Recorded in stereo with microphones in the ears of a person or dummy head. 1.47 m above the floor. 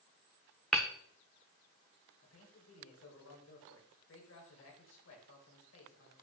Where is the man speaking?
75° left (ahead or behind), 2.5 m.